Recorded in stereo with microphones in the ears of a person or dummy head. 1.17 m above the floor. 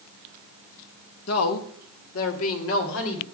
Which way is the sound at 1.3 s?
80° left.